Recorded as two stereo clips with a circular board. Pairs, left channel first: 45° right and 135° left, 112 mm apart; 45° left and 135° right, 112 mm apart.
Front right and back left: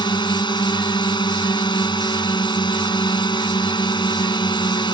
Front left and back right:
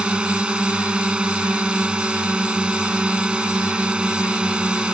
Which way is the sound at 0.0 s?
55° right.